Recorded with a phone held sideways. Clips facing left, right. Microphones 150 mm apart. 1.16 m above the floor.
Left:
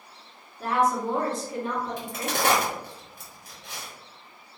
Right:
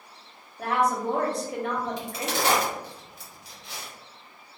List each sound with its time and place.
0.6 s a woman speaking: 65° right (ahead or behind), 1.0 m
2.0 s a crack: 55° left (ahead or behind), 1.1 m